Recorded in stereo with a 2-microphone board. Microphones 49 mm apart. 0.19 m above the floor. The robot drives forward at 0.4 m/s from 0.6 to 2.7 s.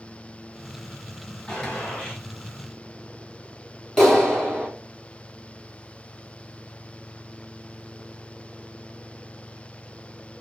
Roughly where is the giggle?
I don't hear a giggle.